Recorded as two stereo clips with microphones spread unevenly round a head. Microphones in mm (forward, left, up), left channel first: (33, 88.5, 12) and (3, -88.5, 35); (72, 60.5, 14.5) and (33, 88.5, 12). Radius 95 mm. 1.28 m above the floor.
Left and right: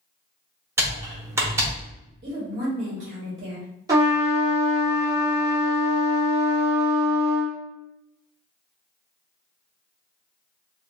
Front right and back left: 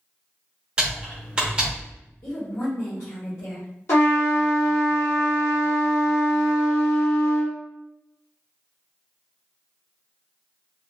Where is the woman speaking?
45° right, 1.1 m.